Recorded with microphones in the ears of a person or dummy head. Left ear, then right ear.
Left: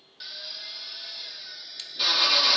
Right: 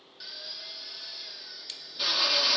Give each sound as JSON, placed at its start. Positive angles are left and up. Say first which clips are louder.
{"t": 0.2, "sound": "a drill", "louder": "left 3 dB", "side_deg": 10, "distance_m": 1.6}